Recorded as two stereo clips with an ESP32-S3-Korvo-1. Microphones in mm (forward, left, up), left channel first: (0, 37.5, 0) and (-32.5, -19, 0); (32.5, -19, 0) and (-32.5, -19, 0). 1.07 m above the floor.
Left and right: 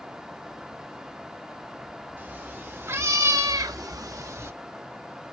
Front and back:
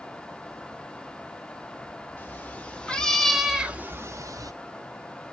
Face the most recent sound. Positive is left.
turn(degrees=-165)